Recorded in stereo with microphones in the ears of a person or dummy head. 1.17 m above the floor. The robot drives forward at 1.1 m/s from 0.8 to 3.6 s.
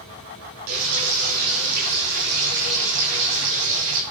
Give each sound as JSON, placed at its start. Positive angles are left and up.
{"t": 0.7, "sound": "frying", "side_deg": -80, "distance_m": 7.0}